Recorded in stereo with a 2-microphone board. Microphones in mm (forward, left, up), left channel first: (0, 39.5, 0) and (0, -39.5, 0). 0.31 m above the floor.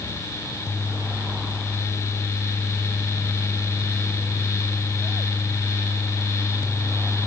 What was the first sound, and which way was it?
Only background noise.